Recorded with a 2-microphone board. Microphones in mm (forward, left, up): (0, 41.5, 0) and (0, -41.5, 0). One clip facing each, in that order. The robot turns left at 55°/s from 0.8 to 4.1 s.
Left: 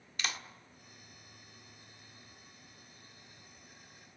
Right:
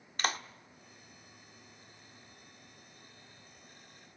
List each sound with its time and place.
0.2 s a clap: 45° right (ahead or behind), 1.1 m